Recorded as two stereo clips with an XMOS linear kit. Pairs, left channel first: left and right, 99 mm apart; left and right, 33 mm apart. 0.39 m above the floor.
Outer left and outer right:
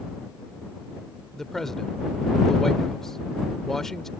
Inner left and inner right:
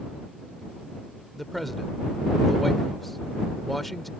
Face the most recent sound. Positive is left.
turn(degrees=5)  # may be behind; listen again after turning